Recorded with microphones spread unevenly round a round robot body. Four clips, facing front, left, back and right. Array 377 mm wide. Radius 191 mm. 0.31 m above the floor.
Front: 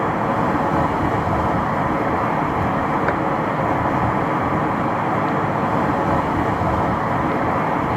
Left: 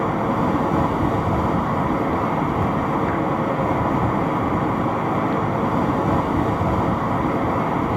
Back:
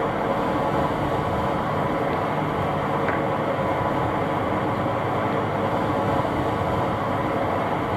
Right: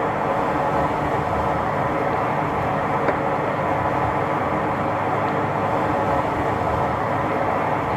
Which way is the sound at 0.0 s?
55° left.